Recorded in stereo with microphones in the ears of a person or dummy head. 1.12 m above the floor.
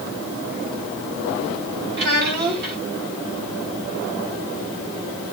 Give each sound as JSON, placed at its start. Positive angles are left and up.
{"t": 2.0, "sound": "a child speaking", "side_deg": -55, "distance_m": 5.0}